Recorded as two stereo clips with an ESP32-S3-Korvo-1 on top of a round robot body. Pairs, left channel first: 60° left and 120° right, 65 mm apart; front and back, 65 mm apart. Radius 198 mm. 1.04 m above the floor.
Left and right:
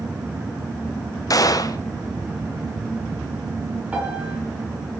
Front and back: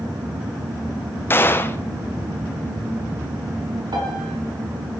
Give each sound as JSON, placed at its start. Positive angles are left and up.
{"t": 1.3, "sound": "a gunshot", "azimuth_deg": 50, "distance_m": 1.4}
{"t": 3.9, "sound": "a piano", "azimuth_deg": 170, "distance_m": 7.0}